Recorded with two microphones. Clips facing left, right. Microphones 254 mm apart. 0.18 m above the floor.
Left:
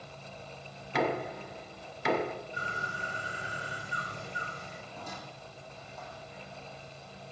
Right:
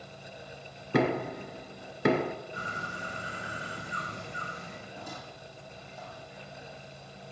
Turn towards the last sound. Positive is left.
turn(degrees=-15)  # may be behind; listen again after turning